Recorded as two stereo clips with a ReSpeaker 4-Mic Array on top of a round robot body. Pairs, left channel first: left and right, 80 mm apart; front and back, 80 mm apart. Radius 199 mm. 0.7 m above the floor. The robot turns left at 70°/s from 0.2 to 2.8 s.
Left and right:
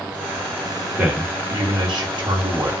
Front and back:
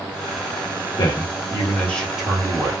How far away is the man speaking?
About 1.4 m.